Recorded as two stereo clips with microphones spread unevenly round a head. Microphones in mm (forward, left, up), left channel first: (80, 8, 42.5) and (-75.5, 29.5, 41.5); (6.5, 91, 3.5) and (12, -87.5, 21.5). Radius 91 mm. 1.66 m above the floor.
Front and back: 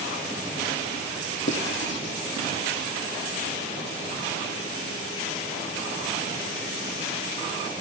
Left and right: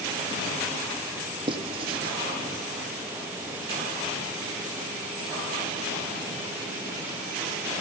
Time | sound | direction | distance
1.5 | writing | 30° right | 0.9 m